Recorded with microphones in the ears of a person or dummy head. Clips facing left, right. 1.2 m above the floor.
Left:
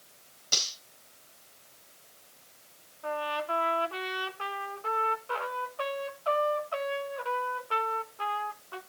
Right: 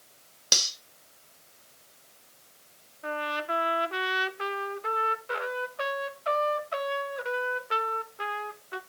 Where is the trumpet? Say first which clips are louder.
Even; 20° right (ahead or behind), 1.0 m.